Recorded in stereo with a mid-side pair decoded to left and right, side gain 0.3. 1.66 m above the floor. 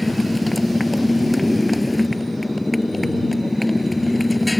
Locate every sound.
0.0 s a motorcycle: 25° left